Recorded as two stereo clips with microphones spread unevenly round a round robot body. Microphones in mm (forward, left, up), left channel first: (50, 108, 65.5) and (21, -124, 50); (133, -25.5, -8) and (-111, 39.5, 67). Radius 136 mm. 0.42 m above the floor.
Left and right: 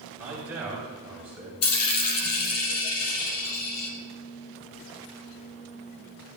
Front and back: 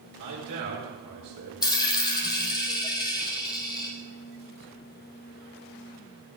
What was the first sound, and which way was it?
A man speaking, straight behind.